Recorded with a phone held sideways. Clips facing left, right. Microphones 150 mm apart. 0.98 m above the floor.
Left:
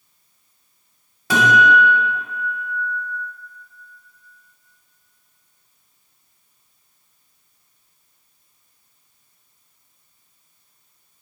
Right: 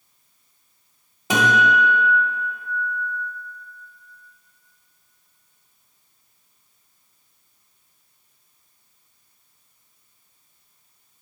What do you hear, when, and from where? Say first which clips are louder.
1.3 s a guitar: left 3 dB; 20° right (ahead or behind), 1.6 m